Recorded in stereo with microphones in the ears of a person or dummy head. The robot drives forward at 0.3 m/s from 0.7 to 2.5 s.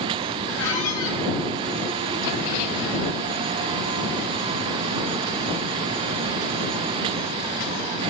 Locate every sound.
0.6 s a squeak: 80° left, 2 m